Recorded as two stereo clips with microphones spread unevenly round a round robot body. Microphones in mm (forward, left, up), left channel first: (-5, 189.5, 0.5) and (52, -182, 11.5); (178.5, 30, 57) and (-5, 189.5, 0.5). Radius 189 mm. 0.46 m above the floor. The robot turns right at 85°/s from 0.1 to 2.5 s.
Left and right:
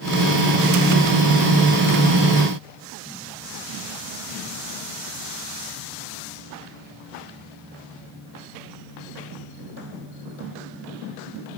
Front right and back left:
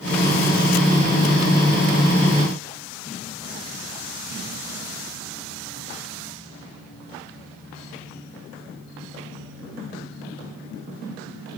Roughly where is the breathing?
I don't hear breathing.